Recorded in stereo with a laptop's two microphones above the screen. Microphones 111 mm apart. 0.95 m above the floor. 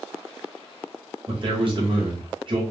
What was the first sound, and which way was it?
A man speaking, 45° right (ahead or behind).